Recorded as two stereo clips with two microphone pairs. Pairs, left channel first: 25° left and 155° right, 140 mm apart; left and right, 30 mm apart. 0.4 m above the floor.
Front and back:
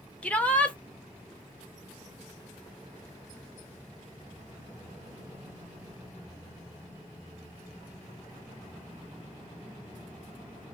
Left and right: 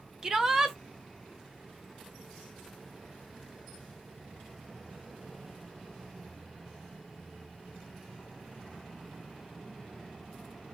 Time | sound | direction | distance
0.2 | a shout | 45° right | 0.9 m